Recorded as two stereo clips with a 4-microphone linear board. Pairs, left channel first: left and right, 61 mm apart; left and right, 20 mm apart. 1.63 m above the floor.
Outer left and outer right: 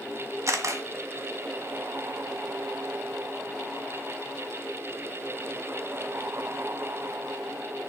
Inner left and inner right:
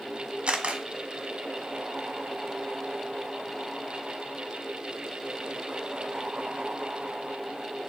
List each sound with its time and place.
0.5 s a camera shutter: 55° right (ahead or behind), 1.4 m